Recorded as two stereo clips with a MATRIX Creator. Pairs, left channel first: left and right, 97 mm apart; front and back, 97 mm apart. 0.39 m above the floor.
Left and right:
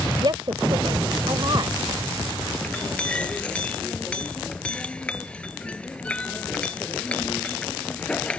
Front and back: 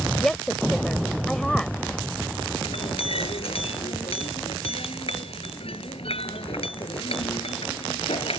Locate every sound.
0.2 s a woman speaking: 85° right
2.6 s a clink: 10° left